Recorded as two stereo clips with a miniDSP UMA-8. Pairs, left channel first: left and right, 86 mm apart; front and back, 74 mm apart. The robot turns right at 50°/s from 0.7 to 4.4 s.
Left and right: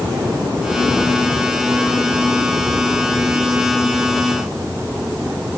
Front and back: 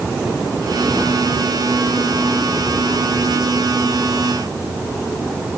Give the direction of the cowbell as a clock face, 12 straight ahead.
I don't hear a cowbell.